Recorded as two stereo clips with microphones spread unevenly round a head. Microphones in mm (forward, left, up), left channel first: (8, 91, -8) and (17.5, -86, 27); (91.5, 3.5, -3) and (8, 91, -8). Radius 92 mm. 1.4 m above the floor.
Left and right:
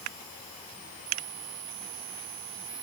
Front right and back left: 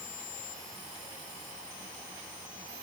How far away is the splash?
I don't hear a splash.